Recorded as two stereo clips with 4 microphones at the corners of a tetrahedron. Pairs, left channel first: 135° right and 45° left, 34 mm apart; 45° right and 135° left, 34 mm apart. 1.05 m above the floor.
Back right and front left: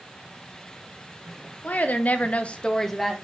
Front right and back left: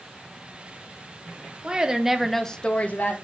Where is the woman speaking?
165° right, 1.3 m; by 3.1 s 45° right, 1.0 m.